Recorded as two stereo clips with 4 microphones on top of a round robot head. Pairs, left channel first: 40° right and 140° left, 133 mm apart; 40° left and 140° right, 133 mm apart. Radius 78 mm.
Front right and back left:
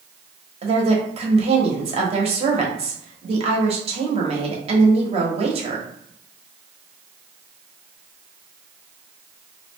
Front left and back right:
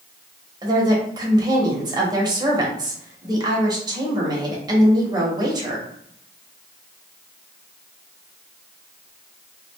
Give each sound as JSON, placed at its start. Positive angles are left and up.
{"t": 0.6, "sound": "a woman speaking", "azimuth_deg": 165, "distance_m": 1.0}